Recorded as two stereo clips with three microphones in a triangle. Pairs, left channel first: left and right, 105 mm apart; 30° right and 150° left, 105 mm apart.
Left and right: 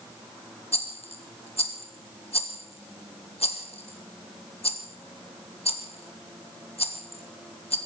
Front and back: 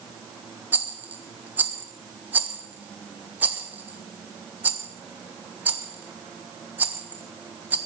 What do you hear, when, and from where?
0.7 s a rattle: 80° left, 1.4 m